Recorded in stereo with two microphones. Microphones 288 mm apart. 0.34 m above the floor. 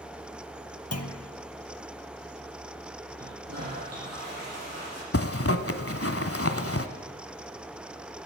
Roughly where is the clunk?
Left.